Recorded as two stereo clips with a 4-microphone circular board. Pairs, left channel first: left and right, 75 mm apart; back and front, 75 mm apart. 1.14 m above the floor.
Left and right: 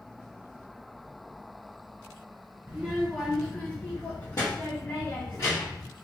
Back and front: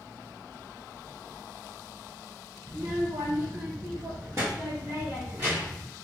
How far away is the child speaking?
About 0.6 m.